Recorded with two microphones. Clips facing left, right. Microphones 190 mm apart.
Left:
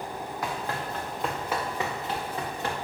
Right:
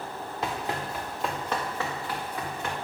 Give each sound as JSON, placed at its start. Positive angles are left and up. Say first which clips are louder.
{"t": 0.4, "sound": "running footsteps", "louder": "right 2 dB", "side_deg": -25, "distance_m": 2.0}